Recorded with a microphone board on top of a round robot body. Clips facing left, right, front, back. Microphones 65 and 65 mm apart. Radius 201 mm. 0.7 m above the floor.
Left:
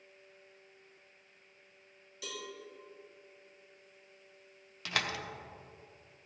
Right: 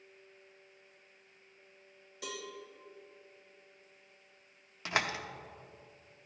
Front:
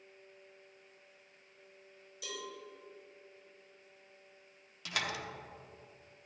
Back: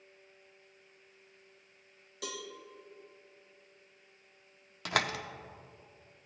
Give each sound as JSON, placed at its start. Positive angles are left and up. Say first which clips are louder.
{"t": 2.2, "sound": "a cowbell", "louder": "right 1 dB, back 2 dB", "azimuth_deg": -150, "distance_m": 1.2}
{"t": 4.8, "sound": "a door slam", "louder": "right 2 dB, back 6 dB", "azimuth_deg": -150, "distance_m": 0.8}